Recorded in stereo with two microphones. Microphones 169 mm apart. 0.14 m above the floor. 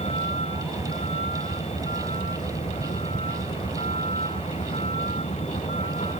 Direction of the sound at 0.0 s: 40° left (ahead or behind).